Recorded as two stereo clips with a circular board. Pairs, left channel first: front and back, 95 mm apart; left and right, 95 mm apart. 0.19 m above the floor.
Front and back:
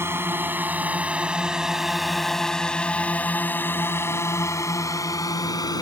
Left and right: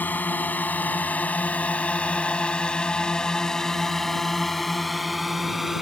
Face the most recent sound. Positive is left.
turn(degrees=-5)